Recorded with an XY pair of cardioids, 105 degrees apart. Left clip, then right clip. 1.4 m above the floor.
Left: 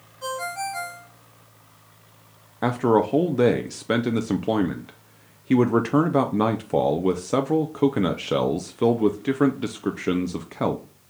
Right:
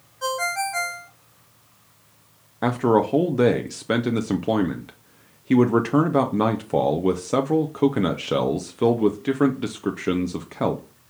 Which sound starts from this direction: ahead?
A man speaking, at 2.6 s.